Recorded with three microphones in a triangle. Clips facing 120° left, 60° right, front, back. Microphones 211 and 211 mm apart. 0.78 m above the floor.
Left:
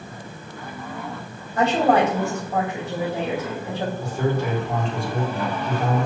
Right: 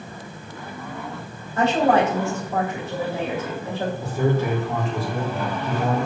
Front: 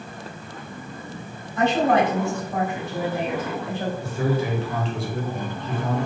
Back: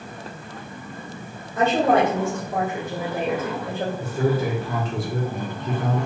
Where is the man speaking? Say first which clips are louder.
Right 3 dB, back 3 dB; 145° right, 2 m.